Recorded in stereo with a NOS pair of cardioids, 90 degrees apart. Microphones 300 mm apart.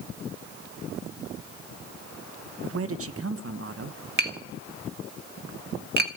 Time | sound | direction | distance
2.6 | a man speaking | 50° right | 1.2 m
4.2 | tapping | 35° right | 1.5 m